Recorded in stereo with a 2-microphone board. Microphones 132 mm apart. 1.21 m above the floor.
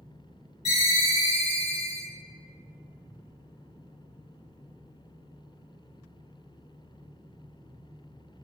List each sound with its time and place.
0.7 s a ringtone: 45° left (ahead or behind), 1.8 m